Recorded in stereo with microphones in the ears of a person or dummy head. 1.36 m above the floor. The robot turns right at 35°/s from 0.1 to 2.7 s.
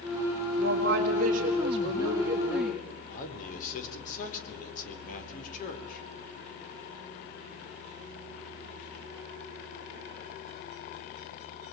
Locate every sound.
0.6 s a woman speaking: 70° right, 4.5 m; by 2.9 s 5° left, 4.5 m
3.1 s a man speaking: 50° left (ahead or behind), 4.5 m